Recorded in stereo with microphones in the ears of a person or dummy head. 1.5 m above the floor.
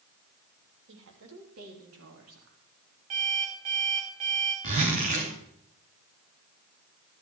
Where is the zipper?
45° right (ahead or behind), 2.5 m.